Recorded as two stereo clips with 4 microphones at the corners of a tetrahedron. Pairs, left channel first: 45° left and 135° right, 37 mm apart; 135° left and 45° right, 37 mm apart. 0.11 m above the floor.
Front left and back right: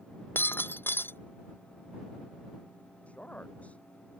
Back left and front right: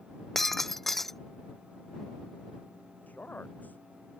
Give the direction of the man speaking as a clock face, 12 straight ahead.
9 o'clock.